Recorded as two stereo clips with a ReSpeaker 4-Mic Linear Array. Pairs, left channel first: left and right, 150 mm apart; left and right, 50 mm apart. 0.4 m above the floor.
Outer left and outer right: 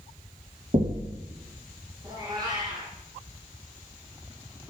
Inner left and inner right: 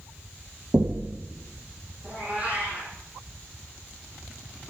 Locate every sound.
0.7 s knocking: 60° right (ahead or behind), 1.9 m
2.0 s a cat meowing: 30° right (ahead or behind), 5 m